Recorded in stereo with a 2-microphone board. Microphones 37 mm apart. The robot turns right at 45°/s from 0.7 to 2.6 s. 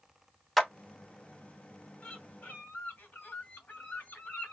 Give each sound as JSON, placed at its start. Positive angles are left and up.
{"t": 0.6, "sound": "a clap", "side_deg": 0, "distance_m": 1.0}
{"t": 2.0, "sound": "a bird", "side_deg": 15, "distance_m": 2.0}